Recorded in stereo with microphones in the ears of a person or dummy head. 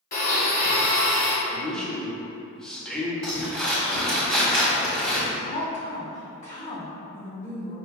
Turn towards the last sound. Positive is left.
turn(degrees=40)  # may be behind; listen again after turning